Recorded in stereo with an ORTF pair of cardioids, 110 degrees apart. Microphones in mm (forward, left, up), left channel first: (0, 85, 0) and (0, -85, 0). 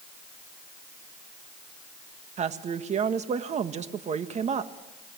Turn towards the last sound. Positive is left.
turn(degrees=-45)